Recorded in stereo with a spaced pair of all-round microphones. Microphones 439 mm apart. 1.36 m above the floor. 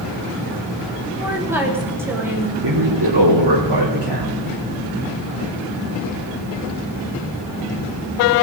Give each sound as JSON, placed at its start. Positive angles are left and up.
{"t": 1.2, "sound": "a woman speaking", "side_deg": -5, "distance_m": 3.5}
{"t": 2.6, "sound": "a man speaking", "side_deg": -65, "distance_m": 3.0}